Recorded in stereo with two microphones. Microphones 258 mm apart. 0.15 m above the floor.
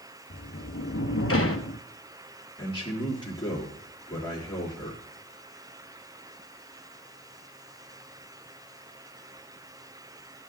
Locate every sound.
0.3 s a sliding door: 60° left (ahead or behind), 0.8 m
2.6 s a man speaking: 15° left (ahead or behind), 3 m